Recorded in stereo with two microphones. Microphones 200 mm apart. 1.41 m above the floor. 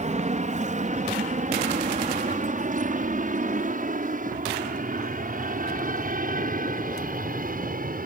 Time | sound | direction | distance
0.0 | an aircraft | 35° right (ahead or behind) | ?